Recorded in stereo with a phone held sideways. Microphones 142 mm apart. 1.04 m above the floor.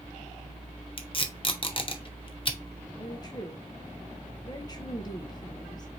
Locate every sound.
1.0 s tape being pulled: 35° left (ahead or behind), 0.8 m
3.0 s a woman speaking: 30° left (ahead or behind), 0.8 m